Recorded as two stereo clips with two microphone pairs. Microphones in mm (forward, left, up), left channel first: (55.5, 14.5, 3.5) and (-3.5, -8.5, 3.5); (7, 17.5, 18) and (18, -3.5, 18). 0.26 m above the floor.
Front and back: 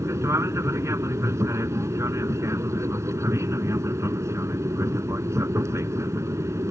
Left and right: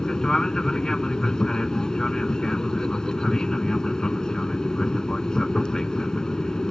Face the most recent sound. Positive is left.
turn(degrees=170)